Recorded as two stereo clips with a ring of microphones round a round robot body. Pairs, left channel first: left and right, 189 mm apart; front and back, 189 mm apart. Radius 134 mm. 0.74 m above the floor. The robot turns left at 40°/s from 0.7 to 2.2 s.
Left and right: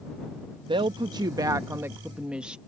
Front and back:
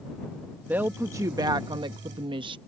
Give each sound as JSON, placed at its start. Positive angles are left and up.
{"t": 0.7, "sound": "a woman speaking", "azimuth_deg": -110}